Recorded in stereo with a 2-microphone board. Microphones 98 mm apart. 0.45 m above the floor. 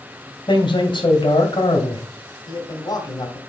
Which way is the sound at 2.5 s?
45° left (ahead or behind).